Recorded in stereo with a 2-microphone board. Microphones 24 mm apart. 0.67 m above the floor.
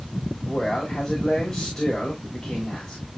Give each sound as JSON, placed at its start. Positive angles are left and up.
{"t": 0.4, "sound": "a man speaking", "side_deg": 40, "distance_m": 5.0}